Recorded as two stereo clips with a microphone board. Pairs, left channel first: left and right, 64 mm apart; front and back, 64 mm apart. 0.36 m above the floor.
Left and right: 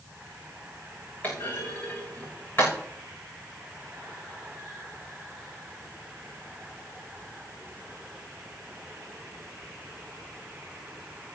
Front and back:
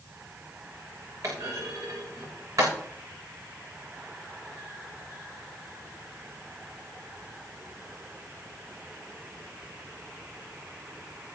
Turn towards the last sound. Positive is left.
turn(degrees=150)